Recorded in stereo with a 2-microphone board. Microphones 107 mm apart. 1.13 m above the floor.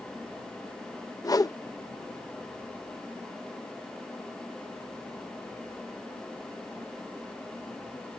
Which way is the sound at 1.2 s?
35° left (ahead or behind).